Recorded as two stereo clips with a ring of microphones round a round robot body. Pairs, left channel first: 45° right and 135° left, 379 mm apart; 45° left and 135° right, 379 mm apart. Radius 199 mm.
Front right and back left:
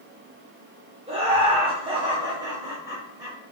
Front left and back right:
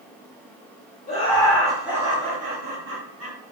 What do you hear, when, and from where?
1.1 s laughter: 85° left, 1.2 m; by 3.4 s 145° right, 1.4 m